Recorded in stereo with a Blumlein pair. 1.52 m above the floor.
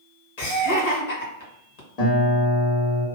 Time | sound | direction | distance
0.4 | laughter | 55° left | 1.8 m
2.0 | a guitar | 45° left | 1.6 m